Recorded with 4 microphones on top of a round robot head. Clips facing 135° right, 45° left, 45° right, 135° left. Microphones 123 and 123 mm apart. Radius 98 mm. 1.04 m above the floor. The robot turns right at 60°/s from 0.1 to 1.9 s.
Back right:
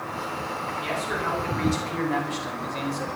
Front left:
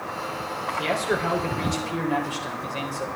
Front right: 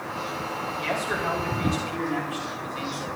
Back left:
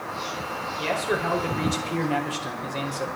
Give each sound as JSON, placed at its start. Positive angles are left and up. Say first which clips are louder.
{"t": 0.8, "sound": "a man speaking", "louder": "front left 6 dB, back left 4 dB", "azimuth_deg": 65, "distance_m": 4.5}